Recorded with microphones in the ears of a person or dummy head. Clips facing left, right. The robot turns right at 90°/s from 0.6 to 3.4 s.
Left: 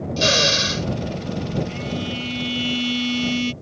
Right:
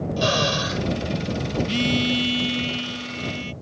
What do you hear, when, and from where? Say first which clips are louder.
0.2 s a drill: left 2 dB; 30° left (ahead or behind); by 0.9 s 55° left (ahead or behind)
1.7 s a phone buzzing: right 5 dB; 70° right; by 3.5 s 85° left